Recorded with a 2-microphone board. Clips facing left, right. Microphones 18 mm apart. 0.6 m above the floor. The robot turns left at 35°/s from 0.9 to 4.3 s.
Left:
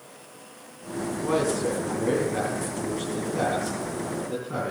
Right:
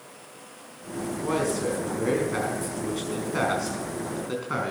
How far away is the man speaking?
About 5 m.